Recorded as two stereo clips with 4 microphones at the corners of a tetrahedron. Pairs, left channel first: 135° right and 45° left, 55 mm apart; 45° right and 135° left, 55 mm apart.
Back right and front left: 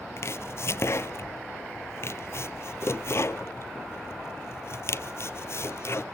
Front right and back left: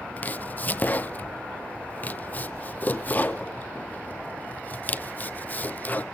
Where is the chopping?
105° right, 0.6 m.